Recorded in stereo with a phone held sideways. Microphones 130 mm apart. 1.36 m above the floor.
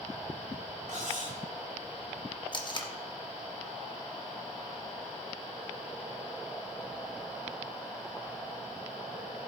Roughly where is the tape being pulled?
Left.